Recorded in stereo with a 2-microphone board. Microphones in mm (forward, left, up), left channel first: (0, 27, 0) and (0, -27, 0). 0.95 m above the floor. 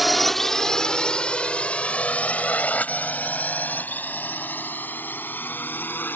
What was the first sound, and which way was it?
A drone, centre (ahead or behind).